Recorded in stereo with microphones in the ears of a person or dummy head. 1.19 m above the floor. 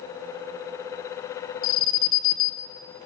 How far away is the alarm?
About 0.8 m.